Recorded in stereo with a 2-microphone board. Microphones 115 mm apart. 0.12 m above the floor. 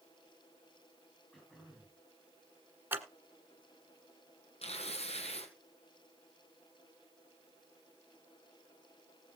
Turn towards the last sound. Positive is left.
turn(degrees=65)  # may be behind; listen again after turning